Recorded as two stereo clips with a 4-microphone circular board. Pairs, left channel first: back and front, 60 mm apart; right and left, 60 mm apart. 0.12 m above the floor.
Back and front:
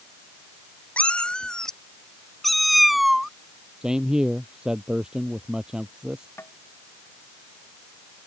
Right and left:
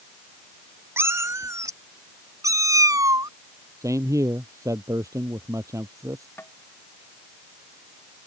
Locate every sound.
1.0 s a cat meowing: 120° left; by 3.3 s 85° left
3.8 s a man speaking: 75° left
6.4 s tapping: 140° right